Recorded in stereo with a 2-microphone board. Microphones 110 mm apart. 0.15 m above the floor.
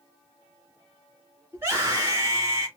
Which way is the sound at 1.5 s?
25° right (ahead or behind).